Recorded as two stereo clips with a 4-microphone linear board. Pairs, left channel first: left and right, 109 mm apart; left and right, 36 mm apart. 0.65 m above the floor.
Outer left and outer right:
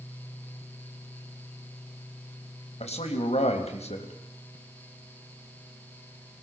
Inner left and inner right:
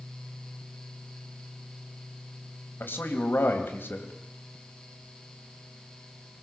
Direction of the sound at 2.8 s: 75° left (ahead or behind).